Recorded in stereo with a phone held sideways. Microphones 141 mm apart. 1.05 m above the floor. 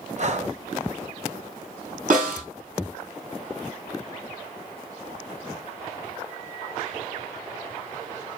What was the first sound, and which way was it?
Breathing, 50° right (ahead or behind).